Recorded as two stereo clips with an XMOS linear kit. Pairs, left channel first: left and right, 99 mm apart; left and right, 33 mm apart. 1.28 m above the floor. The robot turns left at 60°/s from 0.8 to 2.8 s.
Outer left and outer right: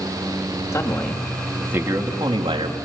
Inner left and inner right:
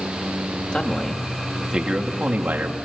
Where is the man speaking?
35° left, 2.5 m; by 2.8 s 85° right, 2.5 m.